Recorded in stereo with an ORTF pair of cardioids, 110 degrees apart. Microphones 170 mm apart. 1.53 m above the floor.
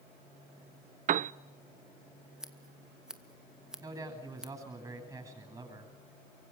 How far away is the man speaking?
About 9.5 m.